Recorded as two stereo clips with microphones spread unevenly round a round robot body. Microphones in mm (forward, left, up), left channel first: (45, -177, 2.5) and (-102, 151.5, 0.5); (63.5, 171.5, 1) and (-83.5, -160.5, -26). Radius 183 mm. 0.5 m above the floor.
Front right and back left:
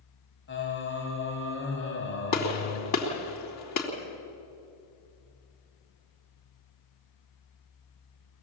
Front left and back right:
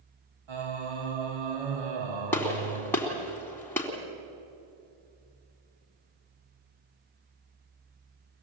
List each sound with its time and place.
0.5 s singing: 125° right, 2.5 m
2.3 s a gunshot: 20° right, 3.5 m